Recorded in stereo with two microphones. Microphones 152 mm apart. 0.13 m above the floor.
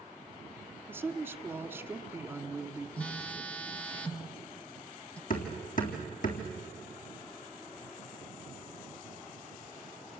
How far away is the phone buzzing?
About 1.1 m.